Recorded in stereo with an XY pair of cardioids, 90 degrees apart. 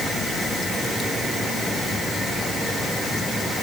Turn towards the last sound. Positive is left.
No sound to turn to.